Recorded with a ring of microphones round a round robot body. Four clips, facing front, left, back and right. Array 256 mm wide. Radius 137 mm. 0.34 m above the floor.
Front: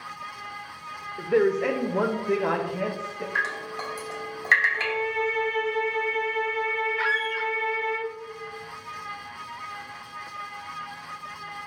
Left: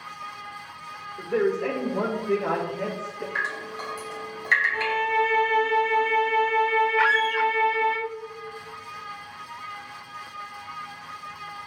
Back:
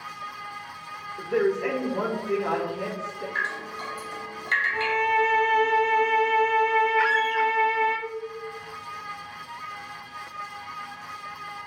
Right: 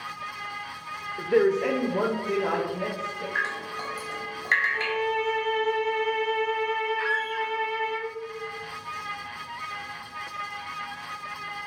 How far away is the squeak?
About 0.5 m.